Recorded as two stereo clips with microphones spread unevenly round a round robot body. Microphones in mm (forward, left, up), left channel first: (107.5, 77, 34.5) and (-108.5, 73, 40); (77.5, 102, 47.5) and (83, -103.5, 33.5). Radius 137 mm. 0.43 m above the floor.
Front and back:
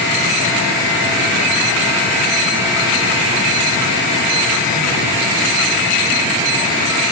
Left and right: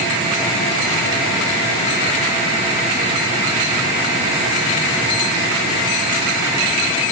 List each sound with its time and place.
Only background noise.